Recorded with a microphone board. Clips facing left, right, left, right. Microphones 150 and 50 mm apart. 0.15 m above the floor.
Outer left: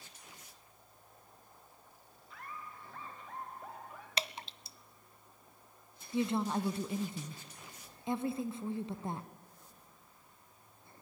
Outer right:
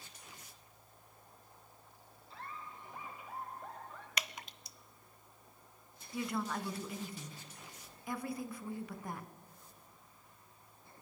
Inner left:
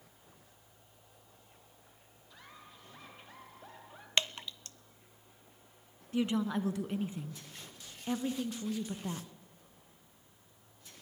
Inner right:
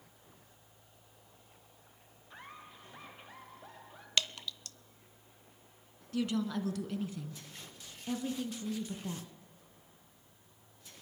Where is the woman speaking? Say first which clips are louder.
Outer left 5 dB, inner left 2 dB; 25° left (ahead or behind), 1.5 m.